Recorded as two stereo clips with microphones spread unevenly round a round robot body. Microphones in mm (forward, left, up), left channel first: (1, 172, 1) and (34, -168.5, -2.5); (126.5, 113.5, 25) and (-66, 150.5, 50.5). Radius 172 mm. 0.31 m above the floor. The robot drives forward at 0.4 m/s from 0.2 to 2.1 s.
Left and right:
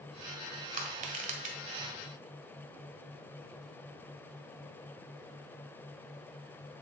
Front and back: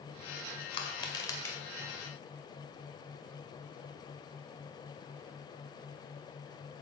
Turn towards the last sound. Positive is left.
turn(degrees=-75)